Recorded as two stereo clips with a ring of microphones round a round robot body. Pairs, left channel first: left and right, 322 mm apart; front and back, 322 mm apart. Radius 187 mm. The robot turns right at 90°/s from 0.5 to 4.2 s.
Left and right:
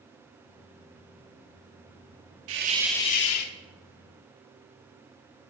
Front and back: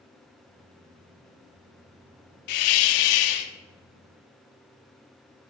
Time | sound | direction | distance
2.5 | a hiss | 35° right | 0.8 m